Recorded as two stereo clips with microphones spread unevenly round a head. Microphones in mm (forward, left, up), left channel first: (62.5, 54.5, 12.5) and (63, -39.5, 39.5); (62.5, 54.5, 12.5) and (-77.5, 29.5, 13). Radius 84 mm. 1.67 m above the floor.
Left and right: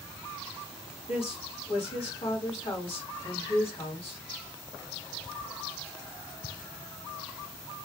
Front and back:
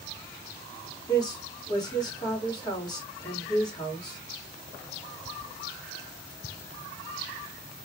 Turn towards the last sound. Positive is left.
turn(degrees=75)